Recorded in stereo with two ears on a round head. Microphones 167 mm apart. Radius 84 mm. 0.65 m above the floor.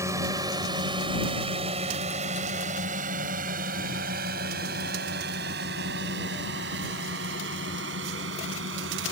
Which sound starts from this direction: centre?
A drone, at 0.0 s.